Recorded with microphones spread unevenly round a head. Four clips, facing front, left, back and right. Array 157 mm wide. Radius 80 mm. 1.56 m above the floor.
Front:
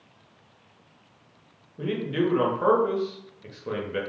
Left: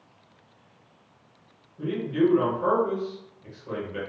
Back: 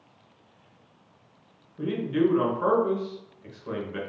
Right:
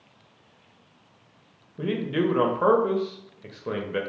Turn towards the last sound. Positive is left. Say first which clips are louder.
# left 1 dB, back 2 dB
turn(degrees=-75)